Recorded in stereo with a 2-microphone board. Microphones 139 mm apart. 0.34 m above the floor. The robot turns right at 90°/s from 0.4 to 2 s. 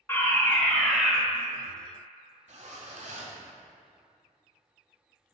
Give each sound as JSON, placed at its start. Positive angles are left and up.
{"t": 0.1, "sound": "a fire alarm", "side_deg": 15, "distance_m": 1.8}
{"t": 2.5, "sound": "a zipper", "side_deg": -60, "distance_m": 1.8}